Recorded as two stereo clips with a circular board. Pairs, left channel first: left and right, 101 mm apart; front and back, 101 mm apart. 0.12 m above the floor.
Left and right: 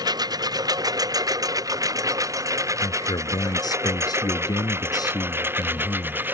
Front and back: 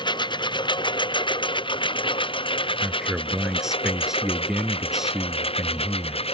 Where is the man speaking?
95° left.